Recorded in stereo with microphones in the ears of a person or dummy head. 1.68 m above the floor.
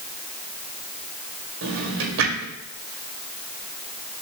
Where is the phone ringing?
No phone ringing in this recording.